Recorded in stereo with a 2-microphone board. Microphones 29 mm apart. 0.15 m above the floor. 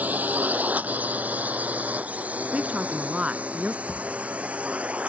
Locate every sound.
0.0 s a drone: 70° right (ahead or behind); by 5.1 s 50° right (ahead or behind)
2.5 s a woman speaking: 45° right (ahead or behind)
3.9 s a thud: 70° right (ahead or behind)